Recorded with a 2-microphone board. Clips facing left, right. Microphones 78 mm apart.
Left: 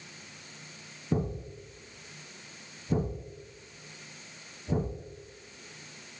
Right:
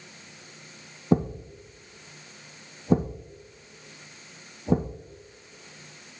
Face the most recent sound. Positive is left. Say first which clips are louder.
# right 7 dB
turn(degrees=-75)  # may be behind; listen again after turning